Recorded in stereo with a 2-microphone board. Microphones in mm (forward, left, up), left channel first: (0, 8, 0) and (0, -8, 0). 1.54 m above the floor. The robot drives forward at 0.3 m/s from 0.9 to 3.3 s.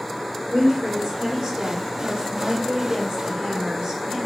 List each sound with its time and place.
0.5 s a woman speaking: 65° right (ahead or behind), 3 m; by 4.2 s 75° right (ahead or behind), 3 m